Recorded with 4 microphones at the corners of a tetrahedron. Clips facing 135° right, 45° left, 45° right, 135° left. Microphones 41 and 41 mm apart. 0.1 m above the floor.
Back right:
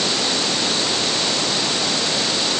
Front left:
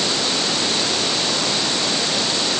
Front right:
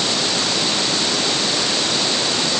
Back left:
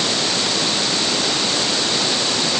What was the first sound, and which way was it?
Only background noise.